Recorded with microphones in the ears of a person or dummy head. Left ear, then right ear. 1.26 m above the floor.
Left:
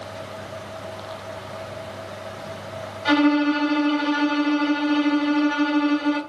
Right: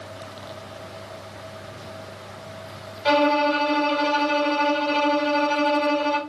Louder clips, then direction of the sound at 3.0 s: Right 1 dB; 15° right (ahead or behind).